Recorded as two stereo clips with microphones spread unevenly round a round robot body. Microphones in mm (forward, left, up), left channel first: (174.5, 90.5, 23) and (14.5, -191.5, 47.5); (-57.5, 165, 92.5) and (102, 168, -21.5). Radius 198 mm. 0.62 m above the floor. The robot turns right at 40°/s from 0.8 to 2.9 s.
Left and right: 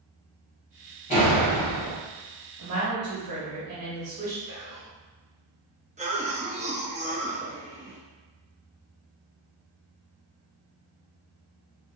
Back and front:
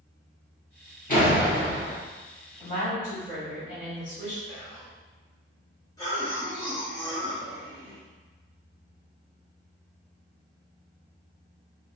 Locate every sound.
1.1 s a door slam: 130° left, 1.9 m; by 2.0 s 165° left, 1.9 m
2.6 s a woman speaking: 110° right, 1.3 m; by 4.4 s 95° right, 1.3 m
4.5 s whispering: 70° right, 0.9 m
6.0 s a cough: 60° right, 0.7 m